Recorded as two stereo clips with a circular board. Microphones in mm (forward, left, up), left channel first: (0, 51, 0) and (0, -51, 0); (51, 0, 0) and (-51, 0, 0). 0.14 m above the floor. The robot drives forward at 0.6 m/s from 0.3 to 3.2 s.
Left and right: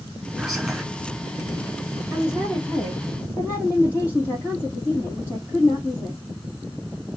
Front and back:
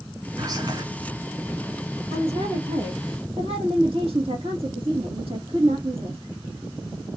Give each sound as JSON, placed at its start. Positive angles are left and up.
{"t": 0.4, "sound": "whispering", "azimuth_deg": -175, "distance_m": 1.8}
{"t": 2.1, "sound": "a woman speaking", "azimuth_deg": 155, "distance_m": 3.0}